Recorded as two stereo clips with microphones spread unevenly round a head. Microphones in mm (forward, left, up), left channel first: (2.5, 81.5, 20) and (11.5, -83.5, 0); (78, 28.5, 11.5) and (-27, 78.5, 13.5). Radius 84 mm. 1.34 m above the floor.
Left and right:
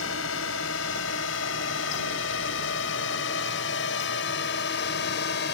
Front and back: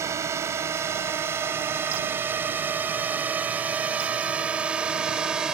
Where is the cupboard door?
I don't hear a cupboard door.